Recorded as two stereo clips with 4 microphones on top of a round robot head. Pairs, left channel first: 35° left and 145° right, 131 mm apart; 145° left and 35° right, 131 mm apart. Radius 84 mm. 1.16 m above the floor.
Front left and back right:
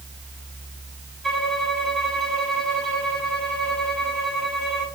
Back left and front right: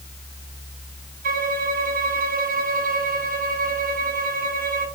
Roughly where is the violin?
Ahead right.